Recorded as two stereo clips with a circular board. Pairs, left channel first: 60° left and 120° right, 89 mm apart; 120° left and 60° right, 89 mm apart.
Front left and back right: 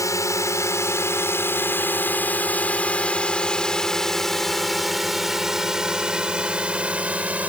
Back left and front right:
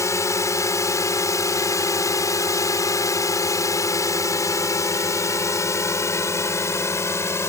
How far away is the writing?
I don't hear writing.